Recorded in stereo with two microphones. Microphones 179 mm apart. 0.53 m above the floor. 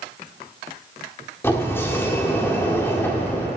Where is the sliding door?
15° left (ahead or behind), 1.5 m.